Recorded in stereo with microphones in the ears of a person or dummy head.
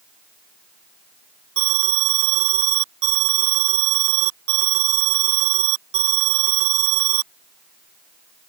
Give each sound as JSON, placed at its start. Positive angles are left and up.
{"t": 1.6, "sound": "an alarm", "side_deg": -70}